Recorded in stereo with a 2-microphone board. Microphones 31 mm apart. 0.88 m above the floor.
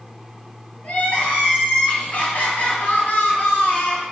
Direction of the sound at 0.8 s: 60° left (ahead or behind).